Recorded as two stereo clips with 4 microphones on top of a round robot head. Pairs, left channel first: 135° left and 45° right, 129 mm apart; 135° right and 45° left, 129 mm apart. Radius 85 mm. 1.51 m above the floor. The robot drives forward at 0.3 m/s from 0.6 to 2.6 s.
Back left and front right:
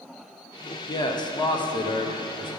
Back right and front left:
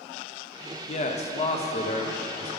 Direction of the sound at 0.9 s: 170° right.